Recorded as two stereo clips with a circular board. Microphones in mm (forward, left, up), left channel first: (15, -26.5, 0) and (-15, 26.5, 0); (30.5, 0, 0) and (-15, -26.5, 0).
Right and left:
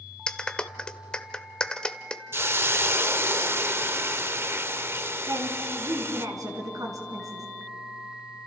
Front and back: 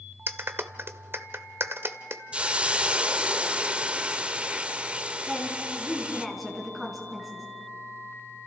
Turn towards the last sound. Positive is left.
turn(degrees=120)